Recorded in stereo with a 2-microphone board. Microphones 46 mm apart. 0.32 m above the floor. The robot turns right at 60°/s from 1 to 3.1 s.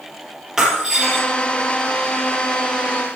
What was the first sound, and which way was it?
Breaking glass, 10° right (ahead or behind).